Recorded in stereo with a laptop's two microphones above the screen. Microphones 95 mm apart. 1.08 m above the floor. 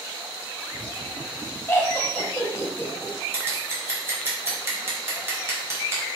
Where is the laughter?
25° left (ahead or behind), 0.6 m.